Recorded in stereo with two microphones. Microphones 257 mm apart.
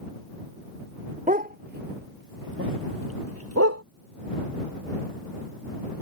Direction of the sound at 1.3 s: 30° right (ahead or behind).